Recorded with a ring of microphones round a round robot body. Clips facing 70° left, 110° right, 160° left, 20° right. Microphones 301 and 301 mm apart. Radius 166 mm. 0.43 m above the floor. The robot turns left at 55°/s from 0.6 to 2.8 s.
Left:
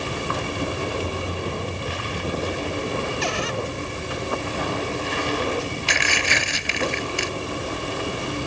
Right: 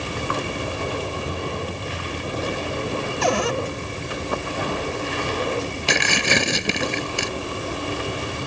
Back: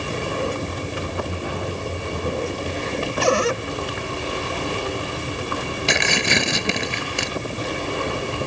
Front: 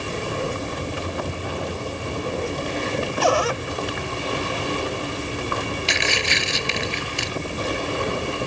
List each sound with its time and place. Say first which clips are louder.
3.2 s a cupboard door: right 5 dB, back 3 dB; 145° right
5.9 s tearing paper: right 4 dB, back 4 dB; 160° right